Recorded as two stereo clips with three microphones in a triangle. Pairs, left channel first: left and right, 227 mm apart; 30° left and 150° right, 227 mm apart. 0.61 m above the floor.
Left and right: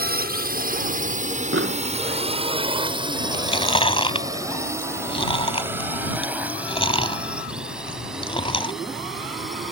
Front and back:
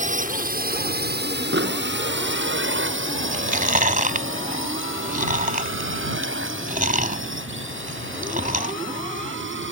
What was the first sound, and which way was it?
A drone, 110° right.